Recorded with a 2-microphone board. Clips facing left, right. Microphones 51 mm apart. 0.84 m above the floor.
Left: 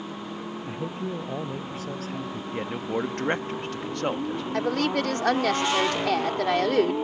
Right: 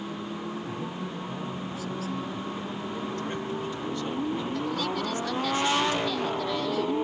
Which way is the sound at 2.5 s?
65° left (ahead or behind).